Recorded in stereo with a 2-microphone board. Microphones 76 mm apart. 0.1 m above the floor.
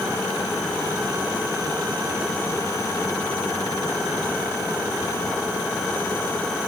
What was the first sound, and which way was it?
Only background noise.